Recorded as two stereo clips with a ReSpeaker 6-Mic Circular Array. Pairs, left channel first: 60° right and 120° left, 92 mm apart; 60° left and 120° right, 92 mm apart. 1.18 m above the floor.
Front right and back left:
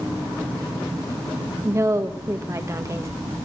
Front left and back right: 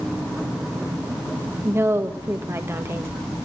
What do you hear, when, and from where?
1.6 s a woman speaking: straight behind, 1.4 m